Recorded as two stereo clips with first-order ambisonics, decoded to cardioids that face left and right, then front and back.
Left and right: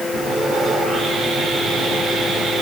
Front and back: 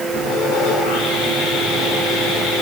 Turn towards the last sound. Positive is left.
turn(degrees=-10)